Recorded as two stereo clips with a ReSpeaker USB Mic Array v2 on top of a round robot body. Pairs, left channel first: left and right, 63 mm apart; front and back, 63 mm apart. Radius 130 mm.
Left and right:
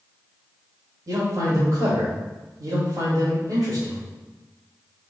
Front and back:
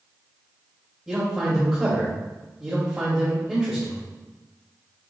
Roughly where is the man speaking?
Right.